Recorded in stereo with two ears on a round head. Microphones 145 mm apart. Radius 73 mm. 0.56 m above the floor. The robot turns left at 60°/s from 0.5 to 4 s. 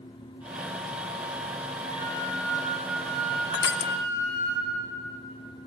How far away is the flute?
About 9.5 m.